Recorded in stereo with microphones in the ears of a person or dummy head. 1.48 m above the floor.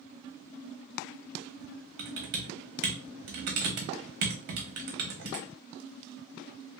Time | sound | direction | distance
2.0 | typing on a keyboard | 55° right (ahead or behind) | 0.7 m